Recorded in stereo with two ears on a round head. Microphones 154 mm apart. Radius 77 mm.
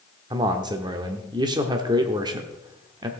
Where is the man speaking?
25° right (ahead or behind), 1.1 m.